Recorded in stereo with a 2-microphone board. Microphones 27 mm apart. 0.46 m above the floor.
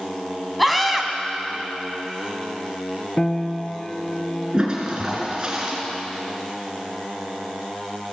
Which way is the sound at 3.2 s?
25° left (ahead or behind).